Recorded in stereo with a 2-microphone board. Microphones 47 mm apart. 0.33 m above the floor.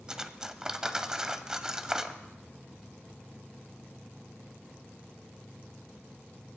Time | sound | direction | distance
0.1 | cutlery clinking | 15° right (ahead or behind) | 0.8 m